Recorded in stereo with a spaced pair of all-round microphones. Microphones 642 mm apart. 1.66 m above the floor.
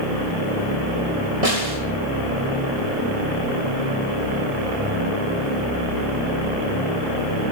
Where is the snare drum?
90° right, 4.5 m.